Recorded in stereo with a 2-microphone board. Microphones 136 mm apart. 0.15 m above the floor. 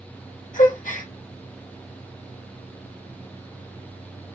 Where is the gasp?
75° left (ahead or behind), 1.4 m.